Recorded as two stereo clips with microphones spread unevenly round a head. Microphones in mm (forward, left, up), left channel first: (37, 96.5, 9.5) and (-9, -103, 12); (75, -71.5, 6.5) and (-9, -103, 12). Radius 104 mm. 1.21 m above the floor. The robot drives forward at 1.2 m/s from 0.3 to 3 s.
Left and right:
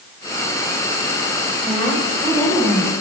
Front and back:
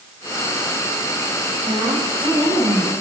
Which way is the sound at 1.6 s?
150° left.